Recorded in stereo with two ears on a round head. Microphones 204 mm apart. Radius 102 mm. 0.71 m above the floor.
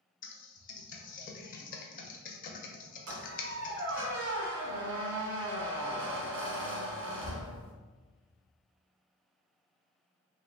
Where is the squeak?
60° right (ahead or behind), 1.3 m.